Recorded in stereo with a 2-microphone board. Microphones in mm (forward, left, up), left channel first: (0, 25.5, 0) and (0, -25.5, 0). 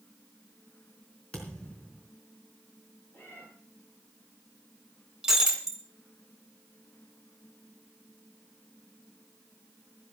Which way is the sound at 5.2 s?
10° right (ahead or behind).